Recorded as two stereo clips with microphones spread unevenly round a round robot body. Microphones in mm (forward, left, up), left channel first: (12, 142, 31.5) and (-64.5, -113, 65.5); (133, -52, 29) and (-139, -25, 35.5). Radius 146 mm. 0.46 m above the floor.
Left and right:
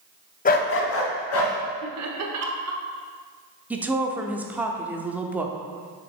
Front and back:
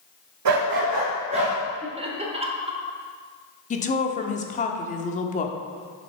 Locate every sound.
0.5 s a dog barking: 135° left, 0.8 m; by 1.6 s 105° left, 2 m
1.8 s laughter: 120° right, 1.3 m
3.7 s a woman speaking: 15° right, 0.7 m